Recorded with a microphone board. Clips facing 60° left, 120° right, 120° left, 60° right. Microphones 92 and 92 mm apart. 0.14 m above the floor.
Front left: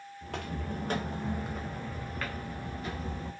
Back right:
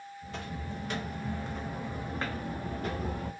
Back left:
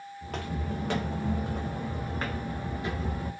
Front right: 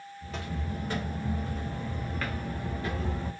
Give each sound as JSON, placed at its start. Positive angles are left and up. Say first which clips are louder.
{"t": 0.2, "sound": "footsteps", "louder": "front left 3 dB, back left 2 dB", "azimuth_deg": 85, "distance_m": 0.8}